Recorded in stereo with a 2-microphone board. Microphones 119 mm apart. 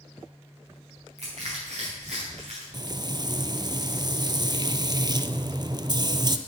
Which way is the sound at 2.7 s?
40° right (ahead or behind).